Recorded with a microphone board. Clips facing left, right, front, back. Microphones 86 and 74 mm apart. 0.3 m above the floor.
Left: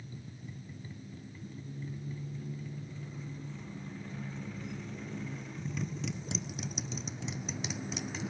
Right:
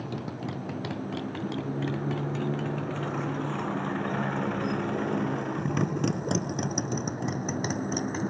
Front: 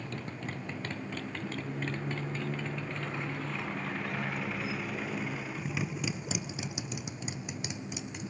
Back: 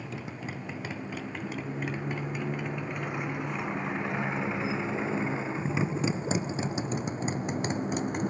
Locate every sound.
0.0 s a motorcycle: 95° right; by 8.3 s 140° right